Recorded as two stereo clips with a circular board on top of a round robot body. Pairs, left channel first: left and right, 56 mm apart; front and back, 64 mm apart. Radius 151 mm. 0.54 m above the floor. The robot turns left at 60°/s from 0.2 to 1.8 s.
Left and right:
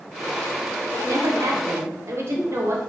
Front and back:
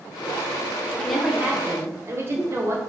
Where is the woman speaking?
80° right, 2.5 m; by 2.8 s 130° right, 2.5 m.